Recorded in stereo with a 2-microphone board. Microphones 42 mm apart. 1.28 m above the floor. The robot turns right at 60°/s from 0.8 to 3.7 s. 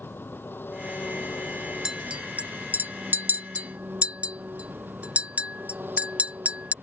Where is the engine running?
60° left; by 6.8 s 125° right.